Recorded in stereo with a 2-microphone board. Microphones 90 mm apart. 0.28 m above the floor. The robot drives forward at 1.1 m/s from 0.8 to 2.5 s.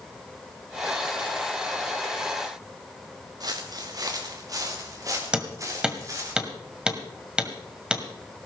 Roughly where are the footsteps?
Right.